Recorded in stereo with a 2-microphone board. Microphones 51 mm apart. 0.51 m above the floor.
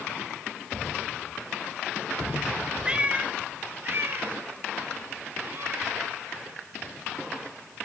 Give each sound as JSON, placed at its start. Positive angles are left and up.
{"t": 2.9, "sound": "a cat meowing", "side_deg": -15, "distance_m": 0.7}